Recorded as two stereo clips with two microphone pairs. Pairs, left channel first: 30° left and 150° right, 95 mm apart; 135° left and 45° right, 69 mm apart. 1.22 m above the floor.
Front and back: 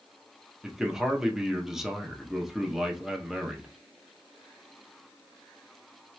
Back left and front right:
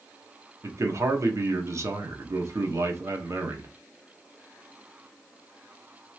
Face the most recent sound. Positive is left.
turn(degrees=-70)